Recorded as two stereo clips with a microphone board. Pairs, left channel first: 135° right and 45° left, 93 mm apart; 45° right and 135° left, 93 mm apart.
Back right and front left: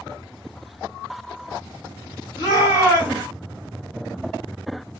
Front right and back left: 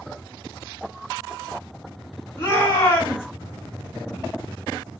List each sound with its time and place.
2.4 s a shout: 105° right, 1.7 m